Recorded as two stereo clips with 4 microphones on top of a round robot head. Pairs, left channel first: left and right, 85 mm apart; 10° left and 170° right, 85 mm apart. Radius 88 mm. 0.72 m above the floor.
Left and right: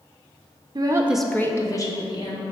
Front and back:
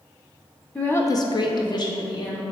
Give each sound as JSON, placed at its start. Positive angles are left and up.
{"t": 0.8, "sound": "a woman speaking", "azimuth_deg": -65, "distance_m": 0.7}